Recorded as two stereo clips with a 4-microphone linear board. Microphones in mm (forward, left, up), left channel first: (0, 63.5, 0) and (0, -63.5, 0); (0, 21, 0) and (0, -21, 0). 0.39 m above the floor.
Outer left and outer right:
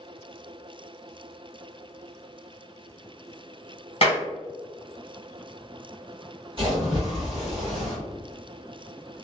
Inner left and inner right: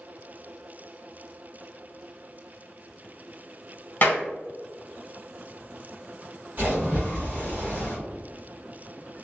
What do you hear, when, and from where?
4.0 s a clap: 45° left (ahead or behind), 1.6 m
6.6 s a splash: 40° right (ahead or behind), 1.5 m